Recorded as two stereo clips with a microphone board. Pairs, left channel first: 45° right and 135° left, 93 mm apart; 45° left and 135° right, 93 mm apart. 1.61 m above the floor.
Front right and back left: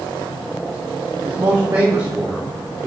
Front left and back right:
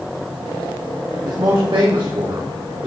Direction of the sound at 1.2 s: 170° left.